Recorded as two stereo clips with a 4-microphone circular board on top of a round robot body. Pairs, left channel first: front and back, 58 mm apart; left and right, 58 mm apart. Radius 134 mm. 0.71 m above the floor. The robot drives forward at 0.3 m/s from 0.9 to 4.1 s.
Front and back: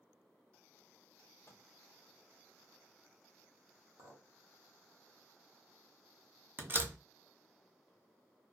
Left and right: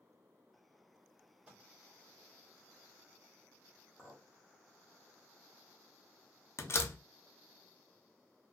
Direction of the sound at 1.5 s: 25° right.